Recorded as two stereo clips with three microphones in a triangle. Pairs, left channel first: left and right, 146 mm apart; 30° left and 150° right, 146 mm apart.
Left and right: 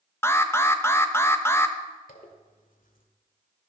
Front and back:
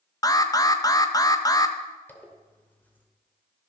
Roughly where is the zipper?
Left.